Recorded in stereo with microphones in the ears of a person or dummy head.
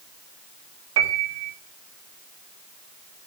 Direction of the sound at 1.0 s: 80° right.